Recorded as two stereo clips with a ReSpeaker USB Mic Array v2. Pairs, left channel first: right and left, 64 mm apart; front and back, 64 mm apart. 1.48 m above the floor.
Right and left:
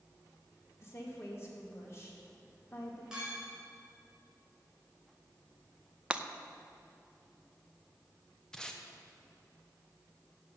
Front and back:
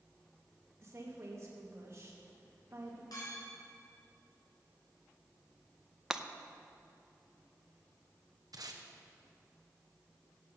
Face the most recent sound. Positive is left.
turn(degrees=-170)